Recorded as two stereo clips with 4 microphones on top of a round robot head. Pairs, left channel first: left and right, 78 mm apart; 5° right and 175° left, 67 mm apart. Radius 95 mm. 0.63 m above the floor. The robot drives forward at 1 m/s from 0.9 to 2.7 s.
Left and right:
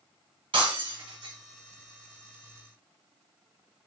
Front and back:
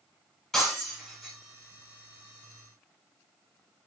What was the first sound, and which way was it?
Breaking glass, 90° right.